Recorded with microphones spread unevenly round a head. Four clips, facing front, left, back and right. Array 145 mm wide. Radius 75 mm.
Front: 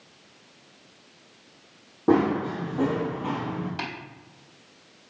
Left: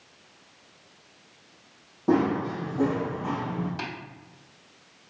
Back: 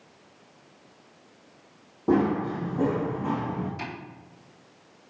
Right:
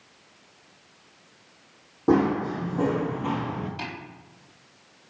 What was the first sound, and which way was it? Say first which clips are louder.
Running footsteps: right 2 dB, front 2 dB; 20° right.